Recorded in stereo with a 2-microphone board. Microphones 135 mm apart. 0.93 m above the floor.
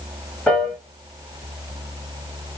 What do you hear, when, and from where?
0.5 s a piano: 10° left (ahead or behind), 1.4 m